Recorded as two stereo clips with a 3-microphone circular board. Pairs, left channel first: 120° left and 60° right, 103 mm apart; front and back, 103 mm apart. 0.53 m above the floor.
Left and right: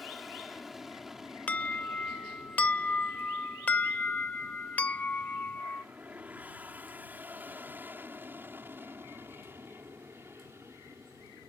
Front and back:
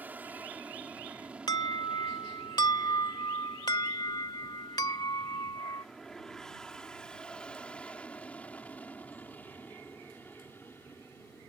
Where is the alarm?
45° left.